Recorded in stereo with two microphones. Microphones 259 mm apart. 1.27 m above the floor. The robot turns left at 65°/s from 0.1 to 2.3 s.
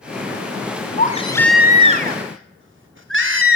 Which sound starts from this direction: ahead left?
A baby crying, at 1.0 s.